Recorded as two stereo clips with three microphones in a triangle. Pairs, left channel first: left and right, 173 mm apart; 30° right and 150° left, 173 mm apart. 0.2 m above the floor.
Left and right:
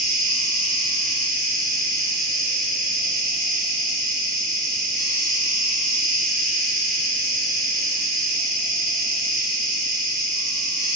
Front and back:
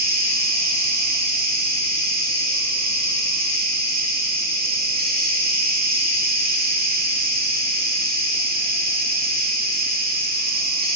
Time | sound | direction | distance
0.0 | an insect | straight behind | 0.9 m